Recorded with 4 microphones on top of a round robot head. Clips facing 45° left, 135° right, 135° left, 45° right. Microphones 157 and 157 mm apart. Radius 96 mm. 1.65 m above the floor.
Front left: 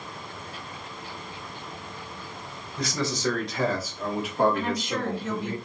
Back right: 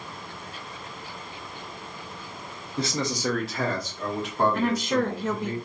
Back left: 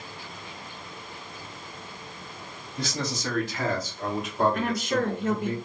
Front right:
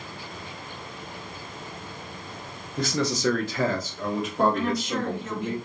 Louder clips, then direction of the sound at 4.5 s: Back right 4 dB, even; straight behind.